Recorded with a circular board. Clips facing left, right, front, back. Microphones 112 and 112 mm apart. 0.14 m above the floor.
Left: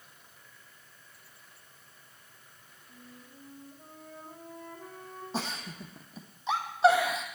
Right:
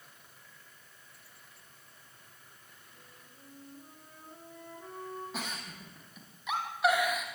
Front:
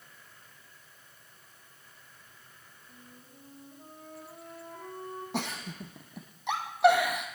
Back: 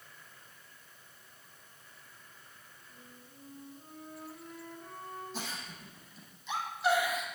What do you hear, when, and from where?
2.9 s a flute: 40° left, 8.5 m
5.3 s a giggle: 30° left, 2.5 m